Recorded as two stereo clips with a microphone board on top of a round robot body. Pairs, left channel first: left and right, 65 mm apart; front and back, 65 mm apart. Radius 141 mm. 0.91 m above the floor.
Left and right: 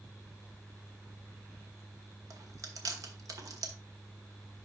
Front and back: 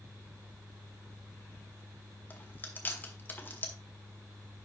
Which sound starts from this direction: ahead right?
Chewing, at 2.3 s.